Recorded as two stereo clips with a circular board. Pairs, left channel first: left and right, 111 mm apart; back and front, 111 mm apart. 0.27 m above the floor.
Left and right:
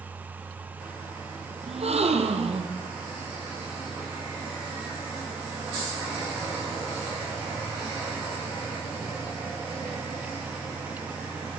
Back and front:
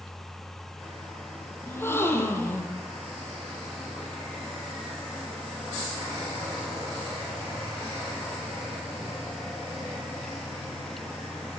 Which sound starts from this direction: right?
A gasp, at 1.7 s.